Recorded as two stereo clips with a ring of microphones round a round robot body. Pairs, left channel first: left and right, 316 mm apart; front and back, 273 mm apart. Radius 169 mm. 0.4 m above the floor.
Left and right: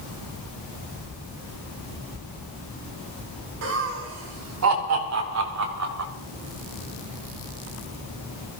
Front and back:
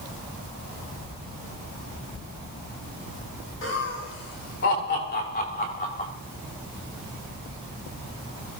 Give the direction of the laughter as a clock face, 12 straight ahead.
2 o'clock.